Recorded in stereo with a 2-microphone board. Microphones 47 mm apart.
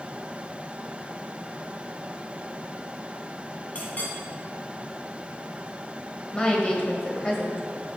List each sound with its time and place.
3.8 s a clink: 35° left (ahead or behind), 1.4 m
6.3 s a woman speaking: 25° left (ahead or behind), 0.9 m